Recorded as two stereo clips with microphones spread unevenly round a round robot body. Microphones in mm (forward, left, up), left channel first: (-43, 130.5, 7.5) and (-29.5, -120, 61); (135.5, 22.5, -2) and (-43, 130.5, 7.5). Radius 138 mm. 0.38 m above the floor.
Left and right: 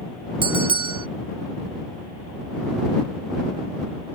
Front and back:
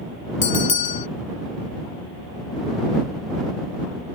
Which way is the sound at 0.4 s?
10° right.